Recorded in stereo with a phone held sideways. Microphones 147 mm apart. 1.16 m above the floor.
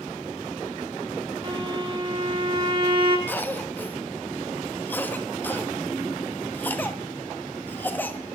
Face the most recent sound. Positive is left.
turn(degrees=15)  # may be behind; listen again after turning